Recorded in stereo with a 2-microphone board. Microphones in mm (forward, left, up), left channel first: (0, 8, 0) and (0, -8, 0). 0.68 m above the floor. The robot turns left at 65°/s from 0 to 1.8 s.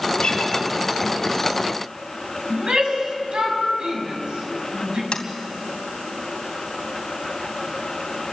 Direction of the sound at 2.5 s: 75° right (ahead or behind).